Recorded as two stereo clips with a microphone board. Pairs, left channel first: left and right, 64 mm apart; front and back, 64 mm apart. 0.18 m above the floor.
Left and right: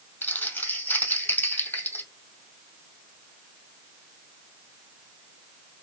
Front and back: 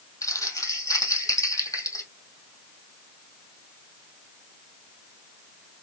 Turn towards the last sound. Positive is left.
turn(degrees=25)